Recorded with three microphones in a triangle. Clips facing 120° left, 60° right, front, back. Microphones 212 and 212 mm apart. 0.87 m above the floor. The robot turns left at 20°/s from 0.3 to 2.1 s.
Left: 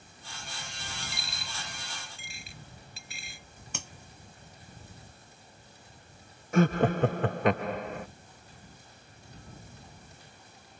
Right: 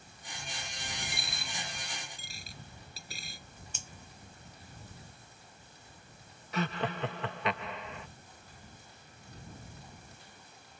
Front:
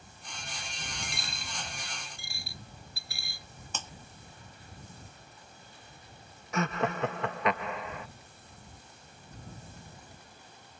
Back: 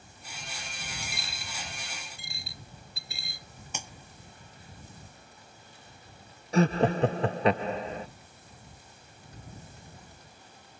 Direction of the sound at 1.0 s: 90° right.